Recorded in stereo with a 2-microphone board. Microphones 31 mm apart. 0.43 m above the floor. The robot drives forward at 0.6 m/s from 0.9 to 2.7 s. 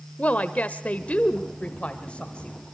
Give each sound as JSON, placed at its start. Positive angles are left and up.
{"t": 0.2, "sound": "a woman speaking", "side_deg": 50, "distance_m": 1.3}